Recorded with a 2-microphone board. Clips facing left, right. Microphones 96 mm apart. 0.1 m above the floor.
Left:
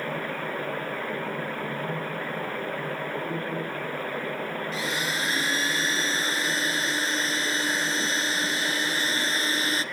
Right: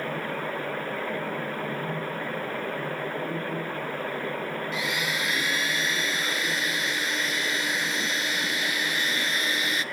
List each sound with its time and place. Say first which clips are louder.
4.7 s a blender: even; 35° left (ahead or behind), 0.9 m